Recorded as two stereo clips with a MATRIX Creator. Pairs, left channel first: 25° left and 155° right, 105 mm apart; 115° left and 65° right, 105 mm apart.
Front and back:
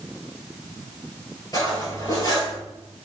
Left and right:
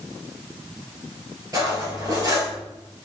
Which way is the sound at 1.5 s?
20° right.